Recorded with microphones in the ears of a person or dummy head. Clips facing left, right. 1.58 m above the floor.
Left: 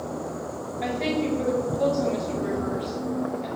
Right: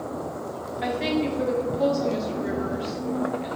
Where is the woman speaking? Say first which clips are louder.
Right 1 dB; centre (ahead or behind), 1.0 m.